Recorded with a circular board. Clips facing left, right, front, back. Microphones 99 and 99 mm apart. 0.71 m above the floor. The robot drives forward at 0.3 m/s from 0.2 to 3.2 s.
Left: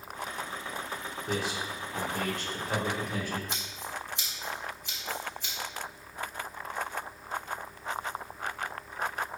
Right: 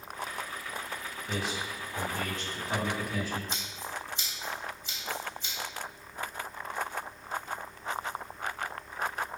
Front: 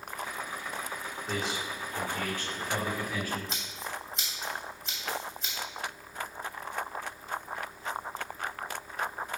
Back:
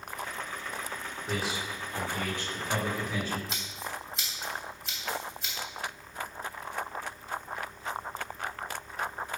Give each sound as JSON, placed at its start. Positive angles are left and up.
{"t": 1.3, "sound": "a man speaking", "azimuth_deg": 95, "distance_m": 1.7}
{"t": 3.5, "sound": "scissors", "azimuth_deg": 90, "distance_m": 2.5}